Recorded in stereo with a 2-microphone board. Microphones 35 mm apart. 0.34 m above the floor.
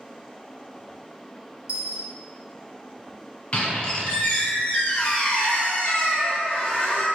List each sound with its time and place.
1.7 s a dropped coin: 50° right (ahead or behind), 0.9 m
3.5 s a squeak: 35° left (ahead or behind), 0.9 m